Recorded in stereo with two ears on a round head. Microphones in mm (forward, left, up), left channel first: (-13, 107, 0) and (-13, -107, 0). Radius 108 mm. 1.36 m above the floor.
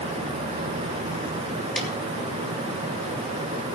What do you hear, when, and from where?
1.8 s a snare drum: 5° left (ahead or behind), 2.5 m